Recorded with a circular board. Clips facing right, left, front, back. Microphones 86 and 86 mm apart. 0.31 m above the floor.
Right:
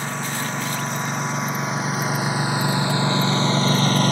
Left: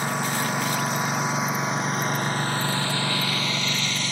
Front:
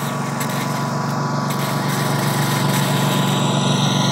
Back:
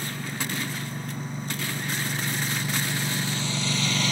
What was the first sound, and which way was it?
A lawn mower, 10° left.